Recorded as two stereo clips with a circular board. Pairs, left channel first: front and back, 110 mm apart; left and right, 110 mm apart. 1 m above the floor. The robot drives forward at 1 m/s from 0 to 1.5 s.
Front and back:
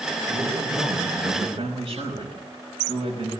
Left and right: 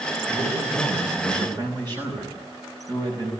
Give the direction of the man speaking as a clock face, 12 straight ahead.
4 o'clock.